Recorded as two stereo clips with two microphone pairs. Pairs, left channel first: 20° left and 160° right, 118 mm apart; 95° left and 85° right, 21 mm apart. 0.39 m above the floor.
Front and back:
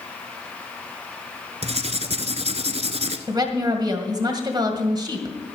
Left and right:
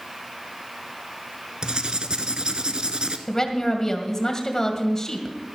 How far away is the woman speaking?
About 2 m.